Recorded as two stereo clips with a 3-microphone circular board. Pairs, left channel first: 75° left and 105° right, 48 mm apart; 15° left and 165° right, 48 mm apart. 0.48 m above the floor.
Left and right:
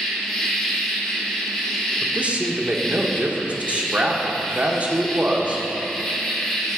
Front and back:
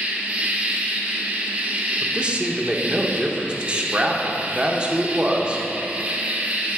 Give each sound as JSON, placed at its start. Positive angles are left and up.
{"t": 0.0, "sound": "an insect", "azimuth_deg": 155, "distance_m": 1.1}
{"t": 2.0, "sound": "a man speaking", "azimuth_deg": -120, "distance_m": 0.9}